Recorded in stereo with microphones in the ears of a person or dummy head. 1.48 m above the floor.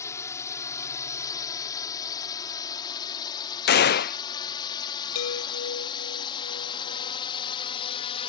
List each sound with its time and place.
0.0 s a drone: 20° left (ahead or behind); by 8.3 s 35° left (ahead or behind)
3.7 s a gunshot: 50° left (ahead or behind)
5.2 s a chime: 80° left